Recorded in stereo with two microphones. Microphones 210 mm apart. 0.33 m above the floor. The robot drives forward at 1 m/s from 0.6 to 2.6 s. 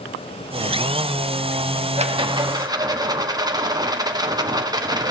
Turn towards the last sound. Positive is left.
turn(degrees=-20)  # may be behind; listen again after turning